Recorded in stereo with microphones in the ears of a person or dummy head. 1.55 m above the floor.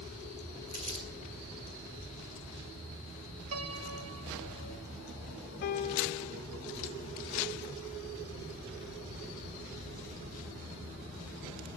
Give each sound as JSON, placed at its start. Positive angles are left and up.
{"t": 0.7, "sound": "crumpling", "side_deg": -35, "distance_m": 2.0}
{"t": 3.5, "sound": "a piano", "side_deg": -80, "distance_m": 1.0}
{"t": 5.6, "sound": "a piano", "side_deg": 45, "distance_m": 0.6}